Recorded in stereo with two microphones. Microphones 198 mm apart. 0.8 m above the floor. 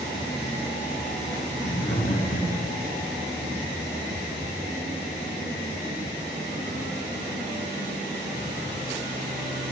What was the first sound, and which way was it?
Laughter, 65° left (ahead or behind).